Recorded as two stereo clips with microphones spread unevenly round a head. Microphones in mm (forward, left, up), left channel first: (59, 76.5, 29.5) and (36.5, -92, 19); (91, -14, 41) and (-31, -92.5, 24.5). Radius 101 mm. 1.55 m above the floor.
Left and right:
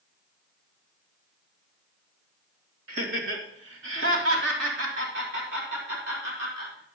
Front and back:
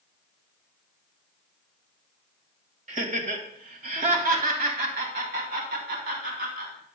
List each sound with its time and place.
2.9 s laughter: 110° right, 2 m; by 7.0 s 145° right, 3.5 m